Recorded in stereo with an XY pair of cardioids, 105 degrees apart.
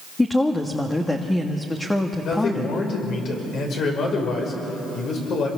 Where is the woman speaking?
15° left, 1.6 m.